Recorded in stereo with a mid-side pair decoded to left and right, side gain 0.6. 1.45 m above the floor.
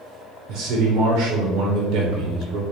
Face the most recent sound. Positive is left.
turn(degrees=-60)